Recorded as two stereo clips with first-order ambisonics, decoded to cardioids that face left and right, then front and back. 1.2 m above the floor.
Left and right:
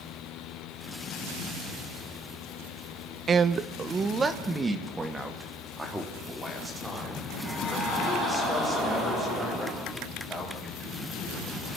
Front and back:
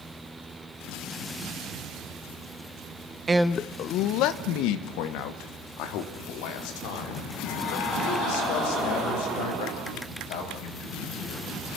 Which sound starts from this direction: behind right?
A man speaking, at 3.3 s.